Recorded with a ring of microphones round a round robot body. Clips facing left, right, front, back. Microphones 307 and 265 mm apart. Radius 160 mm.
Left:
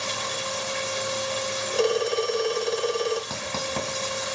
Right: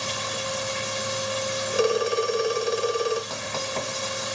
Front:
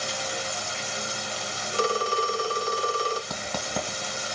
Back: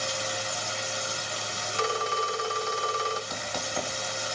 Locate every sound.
0.0 s running water: 15° right, 1.9 m
1.7 s a phone ringing: 5° right, 0.5 m
3.3 s writing: 30° left, 1.7 m